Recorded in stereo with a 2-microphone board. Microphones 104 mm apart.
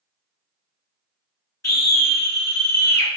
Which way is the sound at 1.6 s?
30° left (ahead or behind).